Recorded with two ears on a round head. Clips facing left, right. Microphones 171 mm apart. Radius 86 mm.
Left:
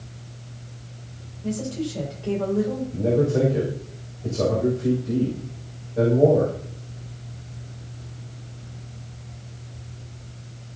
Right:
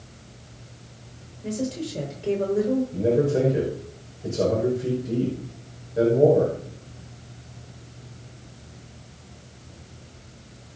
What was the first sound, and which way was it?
A woman speaking, 25° right (ahead or behind).